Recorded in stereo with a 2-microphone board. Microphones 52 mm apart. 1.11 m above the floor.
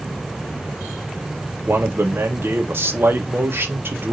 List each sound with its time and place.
1.7 s a man speaking: 45° right (ahead or behind), 1.2 m